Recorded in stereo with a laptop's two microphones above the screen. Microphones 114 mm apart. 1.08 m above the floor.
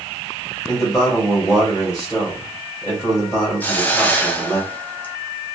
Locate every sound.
0.7 s a man speaking: 25° left (ahead or behind), 1.5 m
3.6 s a hiss: 15° left (ahead or behind), 0.7 m